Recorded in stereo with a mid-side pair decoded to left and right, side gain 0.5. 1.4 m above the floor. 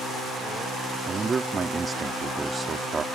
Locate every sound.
1.1 s a man speaking: 30° right